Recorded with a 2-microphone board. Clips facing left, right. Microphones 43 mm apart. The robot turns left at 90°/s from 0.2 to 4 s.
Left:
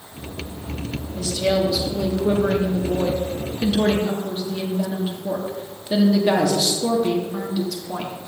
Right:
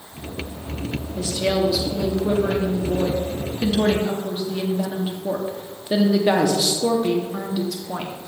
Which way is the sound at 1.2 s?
20° right (ahead or behind).